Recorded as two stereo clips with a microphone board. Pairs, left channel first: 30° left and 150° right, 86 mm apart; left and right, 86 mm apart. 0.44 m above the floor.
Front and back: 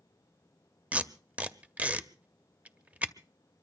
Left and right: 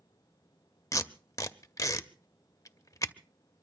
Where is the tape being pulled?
140° left, 0.6 m.